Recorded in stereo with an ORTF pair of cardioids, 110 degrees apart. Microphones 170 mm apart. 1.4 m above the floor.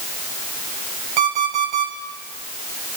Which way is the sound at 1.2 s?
70° right.